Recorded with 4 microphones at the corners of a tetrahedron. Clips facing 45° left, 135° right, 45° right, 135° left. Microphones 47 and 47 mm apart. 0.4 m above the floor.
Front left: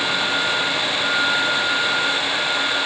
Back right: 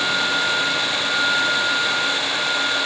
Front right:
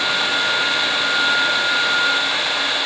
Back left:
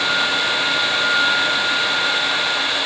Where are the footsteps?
I don't hear footsteps.